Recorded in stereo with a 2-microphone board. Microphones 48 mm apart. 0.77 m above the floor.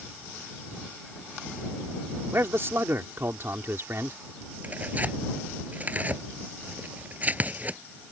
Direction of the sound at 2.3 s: 55° right (ahead or behind).